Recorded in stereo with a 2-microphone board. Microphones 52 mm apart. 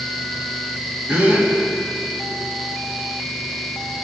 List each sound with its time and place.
1.1 s a gasp: 30° right (ahead or behind), 1.8 m